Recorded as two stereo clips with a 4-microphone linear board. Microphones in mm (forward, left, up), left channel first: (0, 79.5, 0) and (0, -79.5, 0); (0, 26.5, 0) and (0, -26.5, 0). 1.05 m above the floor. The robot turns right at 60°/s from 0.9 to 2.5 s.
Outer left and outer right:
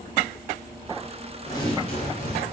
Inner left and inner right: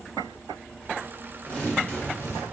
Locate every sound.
1.5 s tearing paper: 20° left, 0.8 m; by 2.4 s 80° left, 0.8 m